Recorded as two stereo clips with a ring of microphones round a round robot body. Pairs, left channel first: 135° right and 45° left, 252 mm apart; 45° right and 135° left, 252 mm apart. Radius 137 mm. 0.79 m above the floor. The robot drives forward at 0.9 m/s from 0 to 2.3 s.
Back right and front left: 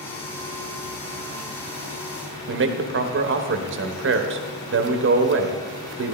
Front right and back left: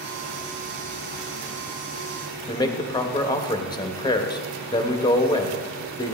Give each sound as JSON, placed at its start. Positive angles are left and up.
{"t": 2.5, "sound": "a man speaking", "azimuth_deg": 25, "distance_m": 1.1}